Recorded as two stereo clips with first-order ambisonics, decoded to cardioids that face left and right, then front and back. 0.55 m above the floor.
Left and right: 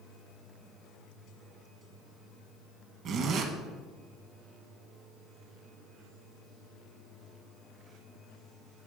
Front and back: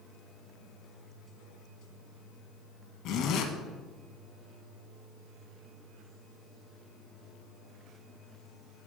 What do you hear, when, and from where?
3.0 s a zipper: 40° right, 0.7 m